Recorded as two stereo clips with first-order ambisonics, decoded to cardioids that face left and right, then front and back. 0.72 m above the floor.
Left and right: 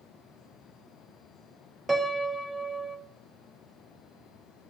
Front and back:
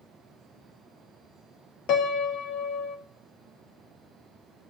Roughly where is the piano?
Ahead.